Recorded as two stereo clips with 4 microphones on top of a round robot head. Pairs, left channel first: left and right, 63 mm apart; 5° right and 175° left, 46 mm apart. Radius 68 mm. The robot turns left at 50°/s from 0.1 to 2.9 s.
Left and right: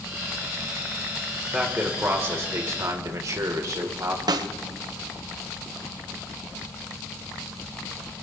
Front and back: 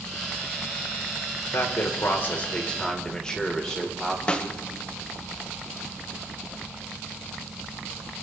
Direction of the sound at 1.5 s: 10° right.